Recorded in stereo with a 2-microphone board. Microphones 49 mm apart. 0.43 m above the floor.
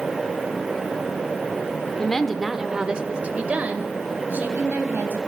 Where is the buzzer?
I don't hear a buzzer.